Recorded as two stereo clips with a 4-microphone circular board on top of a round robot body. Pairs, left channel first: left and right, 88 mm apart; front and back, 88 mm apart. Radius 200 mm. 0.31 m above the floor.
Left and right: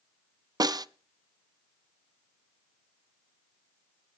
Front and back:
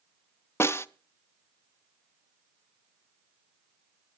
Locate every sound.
0.6 s a snare drum: 55° right, 0.7 m